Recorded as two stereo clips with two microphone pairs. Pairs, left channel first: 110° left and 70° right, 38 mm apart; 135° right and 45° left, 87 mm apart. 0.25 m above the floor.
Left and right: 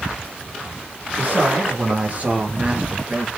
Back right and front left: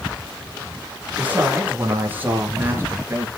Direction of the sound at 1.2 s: 25° right.